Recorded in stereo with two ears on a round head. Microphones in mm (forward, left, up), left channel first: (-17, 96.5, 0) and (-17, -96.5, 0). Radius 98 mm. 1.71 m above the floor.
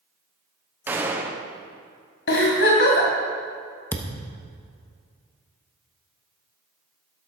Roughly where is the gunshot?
Centre.